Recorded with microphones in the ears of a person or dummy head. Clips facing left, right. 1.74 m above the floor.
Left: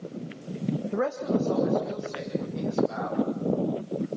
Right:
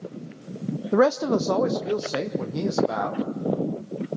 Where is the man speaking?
85° right, 0.5 m.